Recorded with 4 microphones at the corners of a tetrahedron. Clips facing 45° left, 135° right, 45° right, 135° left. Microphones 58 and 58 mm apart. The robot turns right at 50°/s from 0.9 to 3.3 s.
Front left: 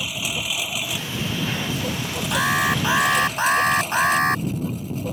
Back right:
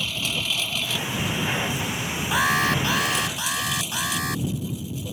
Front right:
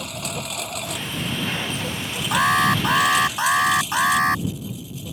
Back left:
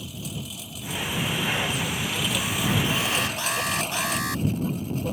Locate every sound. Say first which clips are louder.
0.0 s a lawn mower: even, front right 6 dB; 30° right; by 5.1 s 90° left
2.3 s an alarm: front left 1 dB, front right 12 dB; 50° right; by 4.5 s straight ahead